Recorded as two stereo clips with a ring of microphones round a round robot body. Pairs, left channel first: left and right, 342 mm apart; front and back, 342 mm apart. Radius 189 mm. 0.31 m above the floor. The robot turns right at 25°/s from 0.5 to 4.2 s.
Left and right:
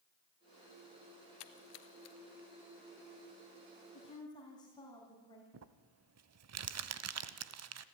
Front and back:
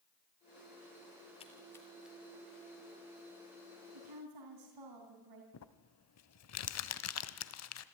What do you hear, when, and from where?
1.4 s a splash: 75° left, 1.2 m; by 2.2 s 95° left, 1.2 m
3.9 s a woman speaking: 160° left, 3.5 m; by 5.4 s 170° left, 3.5 m
5.5 s crumpling: 45° right, 1.0 m